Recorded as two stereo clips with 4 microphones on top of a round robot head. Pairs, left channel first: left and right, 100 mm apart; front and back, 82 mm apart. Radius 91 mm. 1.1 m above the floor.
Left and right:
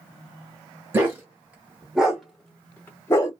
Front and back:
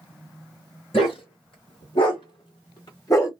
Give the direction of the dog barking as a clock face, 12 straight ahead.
1 o'clock.